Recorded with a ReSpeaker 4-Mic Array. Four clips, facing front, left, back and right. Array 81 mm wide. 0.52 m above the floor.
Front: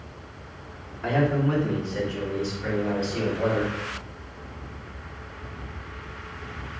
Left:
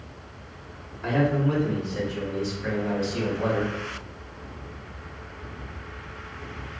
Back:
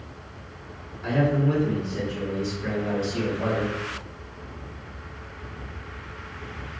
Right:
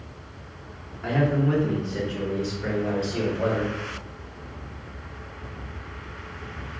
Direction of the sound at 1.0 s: 10° right.